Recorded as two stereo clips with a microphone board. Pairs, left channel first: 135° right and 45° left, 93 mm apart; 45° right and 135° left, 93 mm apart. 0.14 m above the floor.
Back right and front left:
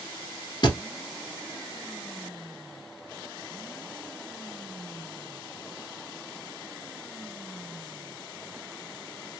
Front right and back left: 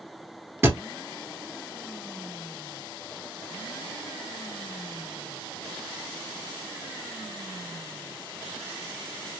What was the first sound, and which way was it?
A thud, 165° right.